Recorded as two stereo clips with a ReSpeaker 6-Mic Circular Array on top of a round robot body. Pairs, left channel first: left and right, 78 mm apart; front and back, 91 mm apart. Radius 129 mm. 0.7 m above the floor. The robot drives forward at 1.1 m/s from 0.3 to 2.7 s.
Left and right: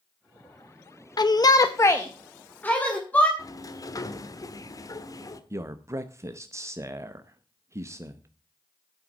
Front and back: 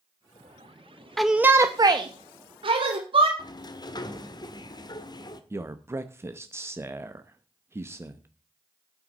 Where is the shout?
85° left, 0.8 m; by 3.3 s 160° left, 1.8 m.